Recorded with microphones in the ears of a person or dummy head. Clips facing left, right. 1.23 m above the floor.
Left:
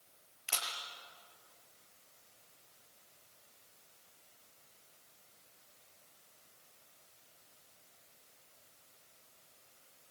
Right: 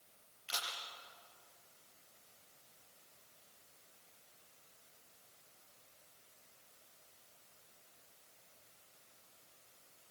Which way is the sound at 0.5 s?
65° left (ahead or behind).